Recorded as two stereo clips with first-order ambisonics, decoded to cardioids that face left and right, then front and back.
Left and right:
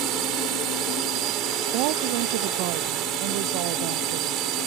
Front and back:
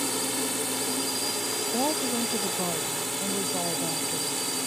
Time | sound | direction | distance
0.0 | a drone | 90° right | ?
1.7 | a woman speaking | 95° right | ?